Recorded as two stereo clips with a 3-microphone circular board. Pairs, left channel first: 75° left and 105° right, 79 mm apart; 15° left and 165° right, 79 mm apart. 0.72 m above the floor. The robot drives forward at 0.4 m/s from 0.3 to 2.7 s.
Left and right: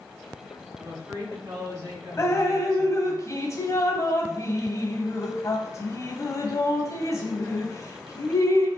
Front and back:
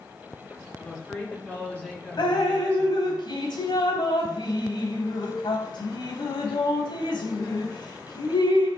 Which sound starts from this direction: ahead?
Dripping, at 2.2 s.